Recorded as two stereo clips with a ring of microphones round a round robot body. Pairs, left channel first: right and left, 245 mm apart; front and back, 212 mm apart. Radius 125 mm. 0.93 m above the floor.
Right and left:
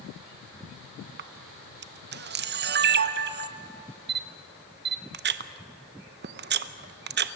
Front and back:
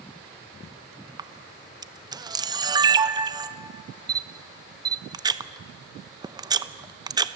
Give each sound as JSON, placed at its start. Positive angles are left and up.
{"t": 1.2, "sound": "a camera shutter", "azimuth_deg": 115, "distance_m": 0.7}